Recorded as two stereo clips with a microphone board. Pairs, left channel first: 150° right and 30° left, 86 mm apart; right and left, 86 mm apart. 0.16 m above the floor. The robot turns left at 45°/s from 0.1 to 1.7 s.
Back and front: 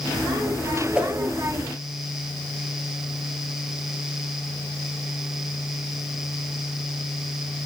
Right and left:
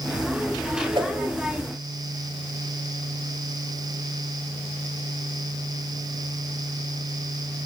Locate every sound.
0.9 s a whoosh: 110° left, 1.0 m; by 1.1 s 100° left, 1.0 m